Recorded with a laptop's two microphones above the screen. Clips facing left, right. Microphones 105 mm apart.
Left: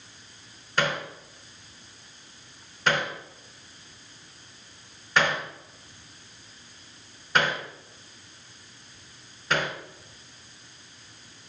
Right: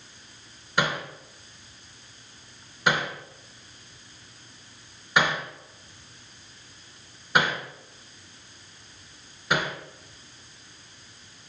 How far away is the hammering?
About 2.5 m.